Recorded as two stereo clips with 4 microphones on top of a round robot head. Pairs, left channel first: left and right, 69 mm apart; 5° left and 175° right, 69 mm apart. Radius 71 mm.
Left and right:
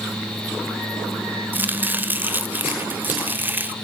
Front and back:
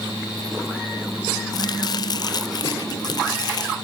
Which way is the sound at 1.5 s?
25° right.